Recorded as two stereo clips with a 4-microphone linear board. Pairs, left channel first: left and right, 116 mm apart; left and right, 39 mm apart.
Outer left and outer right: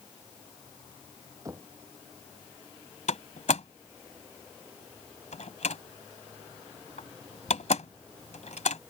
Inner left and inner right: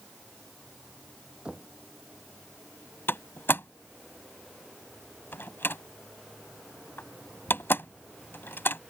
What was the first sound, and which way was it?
Knocking, 30° right (ahead or behind).